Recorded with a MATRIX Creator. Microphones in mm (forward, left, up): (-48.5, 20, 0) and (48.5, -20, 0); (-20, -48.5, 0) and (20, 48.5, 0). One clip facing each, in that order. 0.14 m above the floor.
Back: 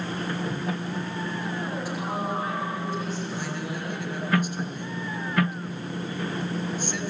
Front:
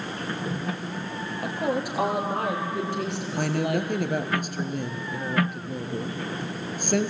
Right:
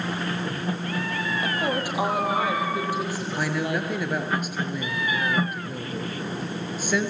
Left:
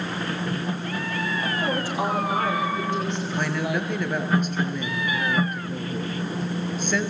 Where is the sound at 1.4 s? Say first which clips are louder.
Front 4 dB, right 1 dB; 40° right, 5 m; by 3.9 s 20° right, 4.5 m.